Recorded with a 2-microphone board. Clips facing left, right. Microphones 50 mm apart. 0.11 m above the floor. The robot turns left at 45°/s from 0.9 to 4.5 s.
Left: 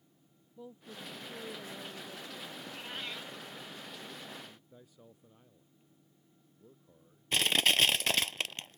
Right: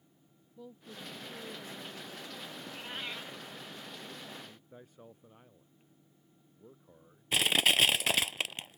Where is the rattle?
No rattle in this recording.